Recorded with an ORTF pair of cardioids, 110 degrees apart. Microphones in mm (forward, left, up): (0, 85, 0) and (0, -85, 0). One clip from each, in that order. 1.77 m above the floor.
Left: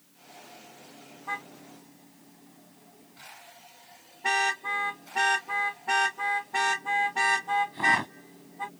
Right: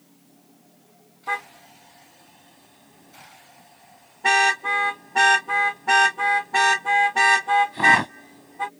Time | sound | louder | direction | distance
1.3 | a car horn | right 7 dB | 45° right | ?